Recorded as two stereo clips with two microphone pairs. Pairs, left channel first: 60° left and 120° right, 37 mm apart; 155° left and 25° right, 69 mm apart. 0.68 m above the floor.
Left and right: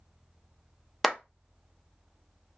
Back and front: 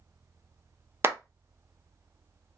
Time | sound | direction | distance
1.0 | a clap | 30° right | 0.5 m